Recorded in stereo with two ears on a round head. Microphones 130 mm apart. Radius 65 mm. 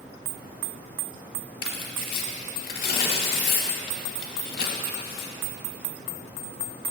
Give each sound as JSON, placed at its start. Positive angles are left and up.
{"t": 1.6, "sound": "tearing paper", "side_deg": 70, "distance_m": 0.9}